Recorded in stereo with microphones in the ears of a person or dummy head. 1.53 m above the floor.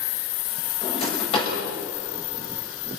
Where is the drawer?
35° left (ahead or behind), 5 m.